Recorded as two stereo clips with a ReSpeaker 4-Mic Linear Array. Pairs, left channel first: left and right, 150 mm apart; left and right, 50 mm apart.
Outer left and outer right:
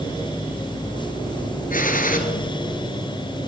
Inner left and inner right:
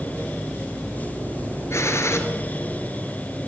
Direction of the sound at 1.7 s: 65° left (ahead or behind).